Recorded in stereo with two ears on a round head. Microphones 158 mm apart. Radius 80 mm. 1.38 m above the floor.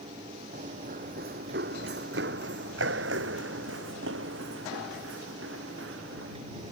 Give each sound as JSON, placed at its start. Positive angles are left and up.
{"t": 0.5, "sound": "running footsteps", "side_deg": -40}